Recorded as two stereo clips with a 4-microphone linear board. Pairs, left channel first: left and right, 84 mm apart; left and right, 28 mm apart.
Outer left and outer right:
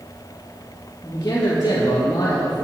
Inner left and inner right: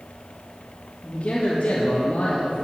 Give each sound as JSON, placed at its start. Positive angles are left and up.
{"t": 1.0, "sound": "a man speaking", "side_deg": 40, "distance_m": 6.0}